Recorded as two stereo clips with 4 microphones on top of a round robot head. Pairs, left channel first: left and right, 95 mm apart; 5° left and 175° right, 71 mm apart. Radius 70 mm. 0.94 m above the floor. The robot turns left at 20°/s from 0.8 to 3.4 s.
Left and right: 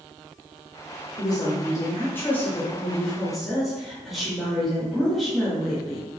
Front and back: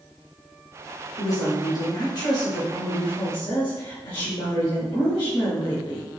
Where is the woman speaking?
45° left, 1.3 m; by 6.0 s straight ahead, 1.3 m.